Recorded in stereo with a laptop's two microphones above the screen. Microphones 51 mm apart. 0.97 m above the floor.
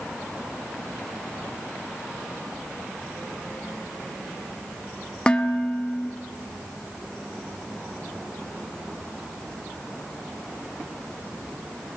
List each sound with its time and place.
5.3 s dishes clattering: 20° left (ahead or behind), 0.8 m